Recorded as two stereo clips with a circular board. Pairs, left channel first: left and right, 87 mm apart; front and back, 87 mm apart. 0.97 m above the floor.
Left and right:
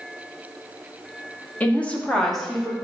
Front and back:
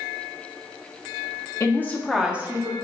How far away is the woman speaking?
About 0.7 m.